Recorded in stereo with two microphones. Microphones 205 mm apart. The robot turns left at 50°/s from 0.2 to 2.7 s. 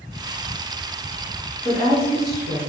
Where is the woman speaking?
50° right, 1.6 m; by 2.6 s 100° right, 1.6 m.